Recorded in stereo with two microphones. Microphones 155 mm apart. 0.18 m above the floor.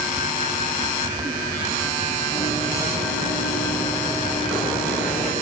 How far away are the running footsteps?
About 6.5 m.